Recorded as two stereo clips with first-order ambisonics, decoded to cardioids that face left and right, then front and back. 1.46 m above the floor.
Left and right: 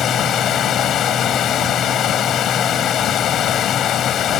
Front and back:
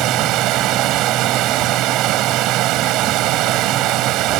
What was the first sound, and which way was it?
Running water, 145° left.